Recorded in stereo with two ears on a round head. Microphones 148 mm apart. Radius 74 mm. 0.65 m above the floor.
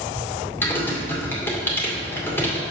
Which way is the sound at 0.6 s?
15° left (ahead or behind).